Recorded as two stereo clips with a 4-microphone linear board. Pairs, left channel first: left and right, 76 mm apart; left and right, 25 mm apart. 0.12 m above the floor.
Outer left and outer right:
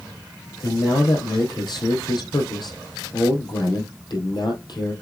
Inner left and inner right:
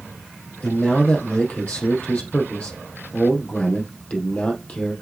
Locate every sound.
0.6 s a man speaking: 70° left (ahead or behind), 3.5 m